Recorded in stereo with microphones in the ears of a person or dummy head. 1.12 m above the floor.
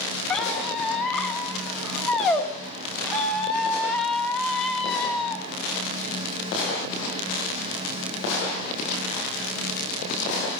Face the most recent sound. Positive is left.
turn(degrees=0)  # may be behind; listen again after turning